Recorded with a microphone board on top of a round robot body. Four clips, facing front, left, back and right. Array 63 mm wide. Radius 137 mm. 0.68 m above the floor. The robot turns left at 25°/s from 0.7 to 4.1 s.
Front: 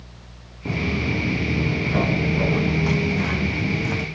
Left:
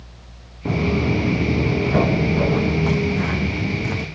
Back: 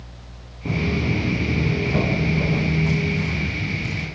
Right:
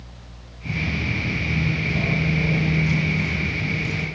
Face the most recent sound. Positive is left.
turn(degrees=50)